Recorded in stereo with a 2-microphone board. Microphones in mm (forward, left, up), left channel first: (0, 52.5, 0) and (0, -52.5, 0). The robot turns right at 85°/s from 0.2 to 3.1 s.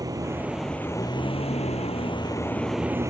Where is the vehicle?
35° right; by 3.1 s 150° right.